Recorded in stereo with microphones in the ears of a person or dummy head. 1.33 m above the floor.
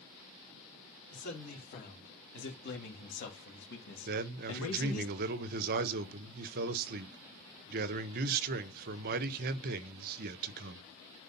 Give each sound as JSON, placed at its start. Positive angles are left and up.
{"t": 1.1, "sound": "a man speaking", "side_deg": 45, "distance_m": 4.0}
{"t": 4.1, "sound": "a man speaking", "side_deg": -50, "distance_m": 0.8}